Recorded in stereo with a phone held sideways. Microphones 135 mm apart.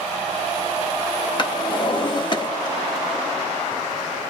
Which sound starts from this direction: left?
A drawer, at 1.4 s.